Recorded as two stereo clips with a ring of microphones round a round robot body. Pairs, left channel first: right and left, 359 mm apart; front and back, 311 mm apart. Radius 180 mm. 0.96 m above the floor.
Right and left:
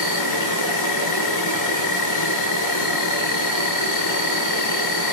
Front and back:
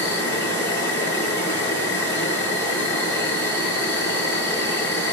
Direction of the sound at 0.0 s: 80° right.